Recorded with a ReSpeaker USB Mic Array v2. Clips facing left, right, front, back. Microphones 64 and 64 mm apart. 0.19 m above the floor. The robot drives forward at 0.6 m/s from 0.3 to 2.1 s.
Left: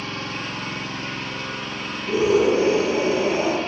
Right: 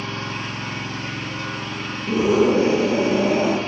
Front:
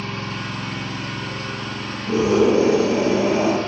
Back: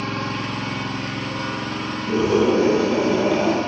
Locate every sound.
0.0 s an engine running: 155° right, 2 m; by 3.7 s 165° right, 3 m
2.1 s a scream: 70° right, 3 m